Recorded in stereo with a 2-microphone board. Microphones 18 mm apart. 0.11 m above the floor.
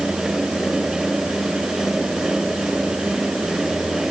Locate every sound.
Only background noise.